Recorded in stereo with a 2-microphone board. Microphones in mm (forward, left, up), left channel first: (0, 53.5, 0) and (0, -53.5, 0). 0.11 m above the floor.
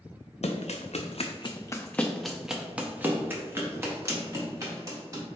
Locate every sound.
0.4 s running footsteps: 80° left, 0.7 m; by 5.2 s 30° right (ahead or behind), 2.5 m